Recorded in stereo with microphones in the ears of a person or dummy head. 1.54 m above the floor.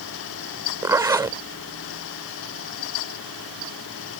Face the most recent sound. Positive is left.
turn(degrees=-15)  # may be behind; listen again after turning